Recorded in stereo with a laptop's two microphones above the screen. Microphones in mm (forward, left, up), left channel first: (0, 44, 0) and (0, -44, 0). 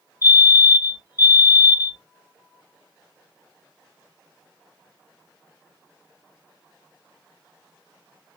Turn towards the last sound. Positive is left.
turn(degrees=-25)  # may be behind; listen again after turning